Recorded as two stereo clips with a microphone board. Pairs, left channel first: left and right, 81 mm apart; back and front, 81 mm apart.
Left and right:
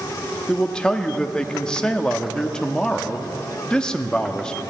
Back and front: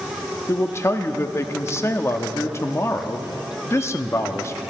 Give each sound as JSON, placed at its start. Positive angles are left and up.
{"t": 0.5, "sound": "a man speaking", "azimuth_deg": 165, "distance_m": 0.6}